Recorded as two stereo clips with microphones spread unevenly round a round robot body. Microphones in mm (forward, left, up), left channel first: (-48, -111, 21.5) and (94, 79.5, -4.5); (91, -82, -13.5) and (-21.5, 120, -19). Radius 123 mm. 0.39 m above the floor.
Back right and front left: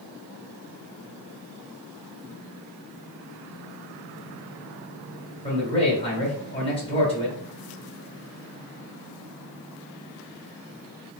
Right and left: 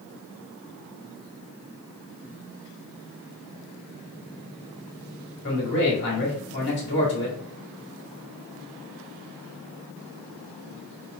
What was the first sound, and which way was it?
A man speaking, 65° right.